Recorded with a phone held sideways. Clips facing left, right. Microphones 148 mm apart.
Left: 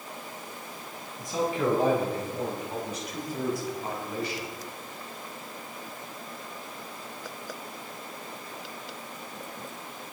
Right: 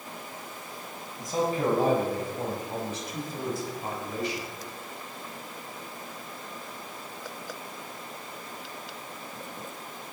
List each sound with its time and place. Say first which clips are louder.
1.2 s a man speaking: right 1 dB; 40° right (ahead or behind), 7.5 m; by 4.5 s 20° right (ahead or behind), 7 m